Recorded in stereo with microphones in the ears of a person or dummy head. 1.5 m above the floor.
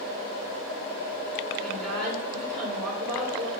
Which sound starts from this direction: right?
A woman speaking, at 1.6 s.